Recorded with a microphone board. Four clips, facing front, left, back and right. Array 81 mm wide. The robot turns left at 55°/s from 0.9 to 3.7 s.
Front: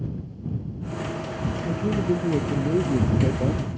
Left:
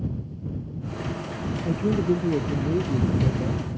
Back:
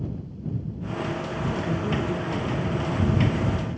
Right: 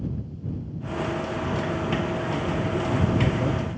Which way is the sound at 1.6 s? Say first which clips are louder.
Left 3 dB, front 6 dB; 85° left.